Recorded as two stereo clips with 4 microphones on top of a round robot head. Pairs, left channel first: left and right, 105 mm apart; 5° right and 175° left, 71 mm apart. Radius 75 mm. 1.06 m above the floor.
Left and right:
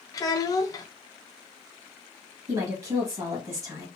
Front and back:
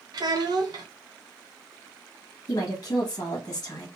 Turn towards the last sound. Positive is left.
turn(degrees=-40)